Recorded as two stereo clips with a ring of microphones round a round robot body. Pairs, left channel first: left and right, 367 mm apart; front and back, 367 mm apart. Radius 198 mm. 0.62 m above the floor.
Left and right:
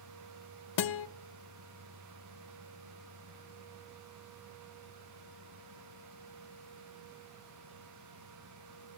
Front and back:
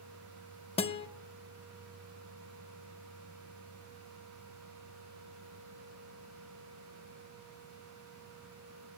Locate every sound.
0.8 s a guitar: 75° left, 0.7 m